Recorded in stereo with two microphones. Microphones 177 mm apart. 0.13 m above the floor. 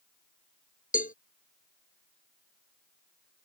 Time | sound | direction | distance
0.9 | a cowbell | 50° left (ahead or behind) | ?